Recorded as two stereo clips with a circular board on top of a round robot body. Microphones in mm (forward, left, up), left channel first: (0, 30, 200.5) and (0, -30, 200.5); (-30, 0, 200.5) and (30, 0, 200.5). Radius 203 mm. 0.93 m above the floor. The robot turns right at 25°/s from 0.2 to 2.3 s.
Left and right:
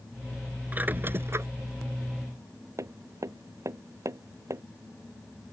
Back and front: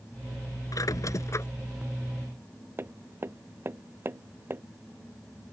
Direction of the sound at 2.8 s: 55° right.